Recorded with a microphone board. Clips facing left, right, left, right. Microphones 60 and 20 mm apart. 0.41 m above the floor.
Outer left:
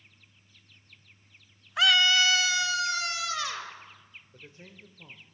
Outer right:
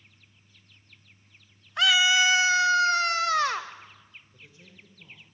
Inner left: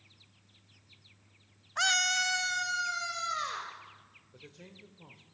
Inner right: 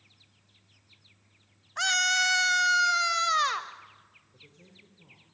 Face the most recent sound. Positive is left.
turn(degrees=45)  # may be behind; listen again after turning